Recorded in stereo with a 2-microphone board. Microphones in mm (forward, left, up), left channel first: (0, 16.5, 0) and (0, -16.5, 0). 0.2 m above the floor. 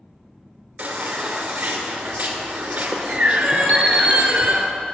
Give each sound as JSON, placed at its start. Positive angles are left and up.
{"t": 0.8, "sound": "a baby crying", "side_deg": -40, "distance_m": 2.0}
{"t": 3.7, "sound": "an alarm clock", "side_deg": 45, "distance_m": 3.0}